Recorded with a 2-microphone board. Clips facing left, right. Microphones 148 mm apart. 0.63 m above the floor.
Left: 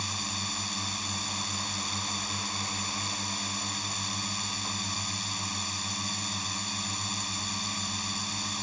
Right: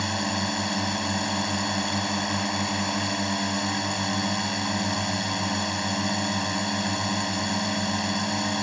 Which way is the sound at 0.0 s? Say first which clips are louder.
Right 11 dB; 75° right (ahead or behind).